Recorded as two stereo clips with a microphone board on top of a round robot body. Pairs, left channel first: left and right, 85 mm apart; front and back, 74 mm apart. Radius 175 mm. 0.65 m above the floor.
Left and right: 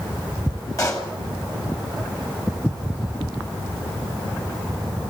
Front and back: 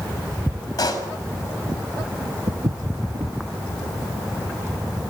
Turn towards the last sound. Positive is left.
turn(degrees=180)